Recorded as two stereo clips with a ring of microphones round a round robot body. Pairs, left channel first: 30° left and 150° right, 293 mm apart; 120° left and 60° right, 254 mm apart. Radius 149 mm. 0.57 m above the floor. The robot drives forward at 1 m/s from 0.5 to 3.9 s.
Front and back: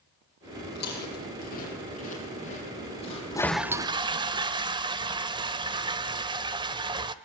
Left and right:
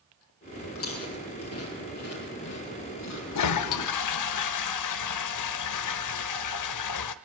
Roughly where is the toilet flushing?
Left.